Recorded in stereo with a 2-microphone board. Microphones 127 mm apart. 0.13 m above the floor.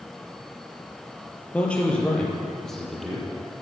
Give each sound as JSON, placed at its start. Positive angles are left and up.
{"t": 1.5, "sound": "a man speaking", "side_deg": 10, "distance_m": 3.0}